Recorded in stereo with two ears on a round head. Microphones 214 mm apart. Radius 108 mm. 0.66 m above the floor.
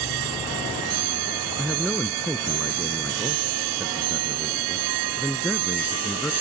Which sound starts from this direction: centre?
A man speaking, at 1.6 s.